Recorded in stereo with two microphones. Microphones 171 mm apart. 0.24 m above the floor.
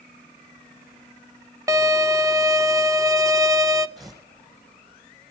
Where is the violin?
20° right (ahead or behind), 0.7 m.